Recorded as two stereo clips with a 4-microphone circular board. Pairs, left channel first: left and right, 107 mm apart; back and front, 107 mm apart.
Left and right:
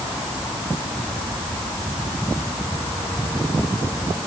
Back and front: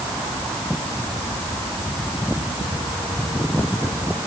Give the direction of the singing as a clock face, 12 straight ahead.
I don't hear singing.